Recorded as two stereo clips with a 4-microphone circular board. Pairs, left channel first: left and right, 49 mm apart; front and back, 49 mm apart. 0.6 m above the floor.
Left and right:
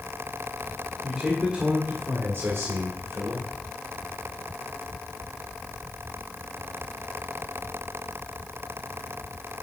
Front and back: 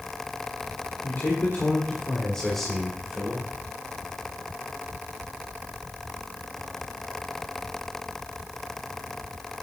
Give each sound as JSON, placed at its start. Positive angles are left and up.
{"t": 1.0, "sound": "a man speaking", "azimuth_deg": -15, "distance_m": 2.5}